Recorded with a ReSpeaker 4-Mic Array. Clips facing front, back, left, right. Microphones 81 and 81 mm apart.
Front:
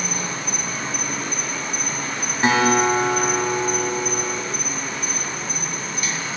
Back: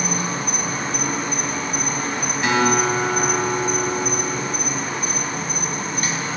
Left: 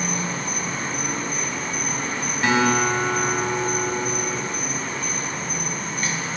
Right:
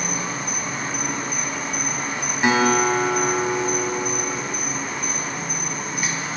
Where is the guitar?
30° right, 1.6 m.